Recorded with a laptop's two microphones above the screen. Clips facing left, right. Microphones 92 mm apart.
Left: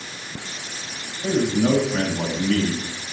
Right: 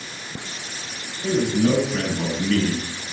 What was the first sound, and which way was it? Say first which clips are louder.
A man speaking: even; 65° left (ahead or behind).